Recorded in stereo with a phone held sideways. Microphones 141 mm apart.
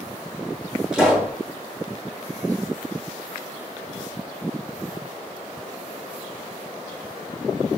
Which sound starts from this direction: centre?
A pop, at 0.9 s.